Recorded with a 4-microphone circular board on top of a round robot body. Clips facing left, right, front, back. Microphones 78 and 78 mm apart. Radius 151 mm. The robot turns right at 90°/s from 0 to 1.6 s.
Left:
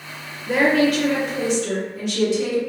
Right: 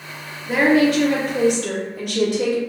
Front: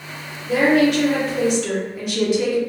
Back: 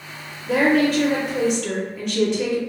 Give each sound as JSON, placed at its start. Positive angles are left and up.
{"t": 0.5, "sound": "a woman speaking", "azimuth_deg": 180, "distance_m": 0.8}